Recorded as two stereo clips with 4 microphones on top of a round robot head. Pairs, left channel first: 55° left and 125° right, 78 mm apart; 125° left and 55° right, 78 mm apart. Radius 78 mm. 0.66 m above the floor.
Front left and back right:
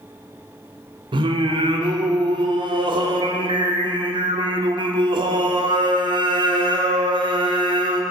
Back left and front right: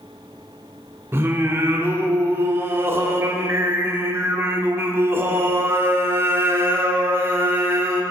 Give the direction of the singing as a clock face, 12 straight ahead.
4 o'clock.